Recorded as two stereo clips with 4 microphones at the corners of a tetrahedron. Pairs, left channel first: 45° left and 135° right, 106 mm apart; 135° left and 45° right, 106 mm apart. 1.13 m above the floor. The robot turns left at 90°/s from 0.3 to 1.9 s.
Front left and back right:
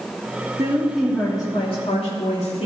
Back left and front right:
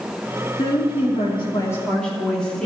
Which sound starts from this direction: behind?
A woman speaking, at 0.6 s.